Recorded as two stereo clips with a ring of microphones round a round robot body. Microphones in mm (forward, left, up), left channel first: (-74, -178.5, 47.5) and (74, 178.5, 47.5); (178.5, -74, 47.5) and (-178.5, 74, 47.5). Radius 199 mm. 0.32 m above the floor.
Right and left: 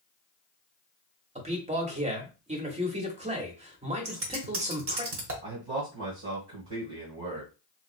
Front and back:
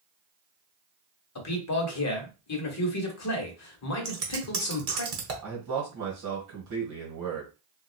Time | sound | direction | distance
1.4 | a man speaking | straight ahead | 1.1 m
4.0 | scissors | 115° left | 1.2 m
5.4 | a man speaking | 120° left | 1.5 m